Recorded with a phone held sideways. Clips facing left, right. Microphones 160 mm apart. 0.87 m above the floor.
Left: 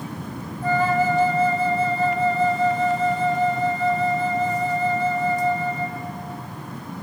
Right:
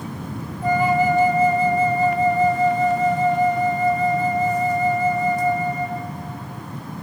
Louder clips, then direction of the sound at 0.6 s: Right 2 dB; 15° right (ahead or behind).